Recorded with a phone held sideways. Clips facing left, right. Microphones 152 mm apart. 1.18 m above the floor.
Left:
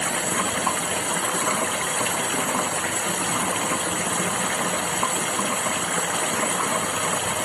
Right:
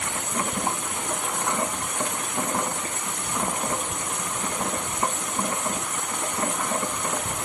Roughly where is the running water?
Left.